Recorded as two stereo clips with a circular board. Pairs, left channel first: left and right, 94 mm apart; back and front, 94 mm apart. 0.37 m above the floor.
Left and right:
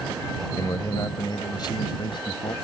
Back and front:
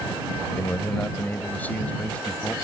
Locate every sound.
0.6 s a man speaking: 125° left; by 2.5 s 105° left